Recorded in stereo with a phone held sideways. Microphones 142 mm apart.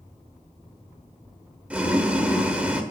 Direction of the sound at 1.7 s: 10° right (ahead or behind).